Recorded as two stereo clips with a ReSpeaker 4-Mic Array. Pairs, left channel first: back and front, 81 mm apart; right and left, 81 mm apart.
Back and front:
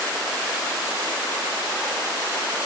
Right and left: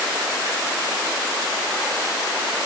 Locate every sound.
Only background noise.